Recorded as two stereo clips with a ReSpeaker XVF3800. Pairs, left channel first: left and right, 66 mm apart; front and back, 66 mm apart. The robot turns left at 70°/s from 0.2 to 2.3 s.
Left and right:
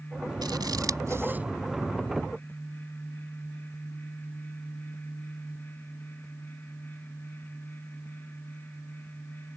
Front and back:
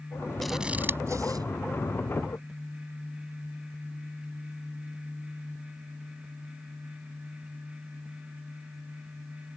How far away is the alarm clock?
I don't hear an alarm clock.